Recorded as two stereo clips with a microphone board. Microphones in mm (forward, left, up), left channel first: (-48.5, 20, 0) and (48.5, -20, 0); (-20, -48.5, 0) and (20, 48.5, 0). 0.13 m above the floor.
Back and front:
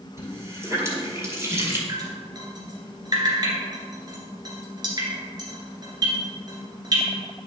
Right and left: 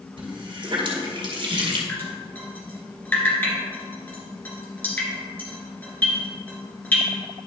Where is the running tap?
40° left, 2.0 m.